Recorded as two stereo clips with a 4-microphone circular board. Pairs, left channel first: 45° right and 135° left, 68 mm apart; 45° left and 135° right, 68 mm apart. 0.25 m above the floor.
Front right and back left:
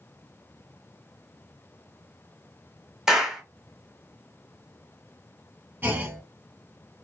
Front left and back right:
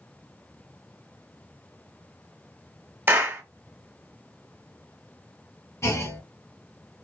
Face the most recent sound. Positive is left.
turn(degrees=75)